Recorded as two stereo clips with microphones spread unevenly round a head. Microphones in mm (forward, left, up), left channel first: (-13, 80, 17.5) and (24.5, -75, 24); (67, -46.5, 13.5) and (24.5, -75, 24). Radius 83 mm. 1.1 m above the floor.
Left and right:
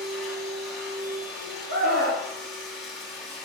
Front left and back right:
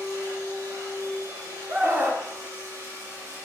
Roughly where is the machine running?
Behind.